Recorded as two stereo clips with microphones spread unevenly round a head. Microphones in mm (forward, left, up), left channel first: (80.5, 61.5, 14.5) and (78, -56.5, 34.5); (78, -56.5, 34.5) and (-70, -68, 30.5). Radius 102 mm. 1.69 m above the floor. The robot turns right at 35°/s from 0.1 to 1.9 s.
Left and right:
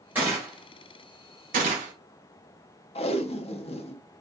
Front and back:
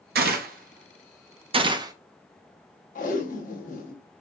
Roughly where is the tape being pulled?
Ahead left.